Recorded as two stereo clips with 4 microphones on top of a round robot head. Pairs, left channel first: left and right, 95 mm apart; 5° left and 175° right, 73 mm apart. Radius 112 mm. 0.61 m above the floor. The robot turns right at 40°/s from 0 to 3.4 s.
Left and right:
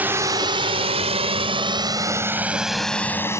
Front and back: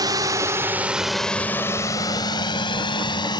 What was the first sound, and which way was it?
A drone, 160° right.